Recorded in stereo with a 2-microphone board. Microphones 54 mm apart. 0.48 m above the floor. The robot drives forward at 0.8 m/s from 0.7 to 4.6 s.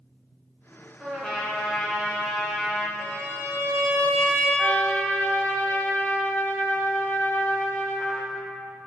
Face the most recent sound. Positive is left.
turn(degrees=40)  # may be behind; listen again after turning